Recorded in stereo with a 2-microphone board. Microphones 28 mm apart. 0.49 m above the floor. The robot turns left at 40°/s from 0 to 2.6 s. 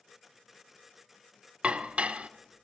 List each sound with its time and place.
1.6 s dishes clattering: 45° right (ahead or behind), 0.6 m; by 2.3 s 50° right (ahead or behind), 0.6 m